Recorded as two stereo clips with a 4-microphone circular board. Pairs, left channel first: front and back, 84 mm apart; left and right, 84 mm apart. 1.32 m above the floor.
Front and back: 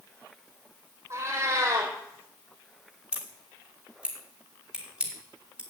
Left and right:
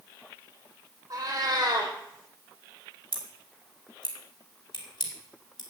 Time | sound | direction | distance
1.1 | a cat meowing | 130° right | 4 m
3.1 | scissors | 105° left | 3 m